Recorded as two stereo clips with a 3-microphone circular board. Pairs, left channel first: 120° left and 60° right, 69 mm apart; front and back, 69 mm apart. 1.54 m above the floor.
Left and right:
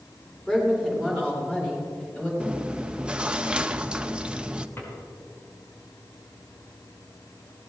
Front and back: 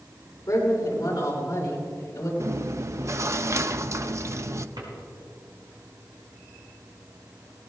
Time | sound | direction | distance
0.5 | a woman speaking | 40° left | 6.5 m
2.4 | chewing | 135° right | 0.5 m
4.8 | a drawer | 175° left | 5.5 m